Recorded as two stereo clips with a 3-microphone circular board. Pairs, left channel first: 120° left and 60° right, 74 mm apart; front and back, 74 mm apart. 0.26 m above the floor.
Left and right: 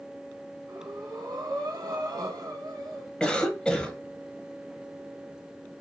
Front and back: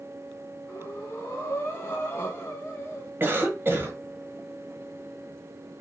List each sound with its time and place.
0.7 s breathing: 55° right, 1.2 m
3.2 s a cough: 175° right, 1.1 m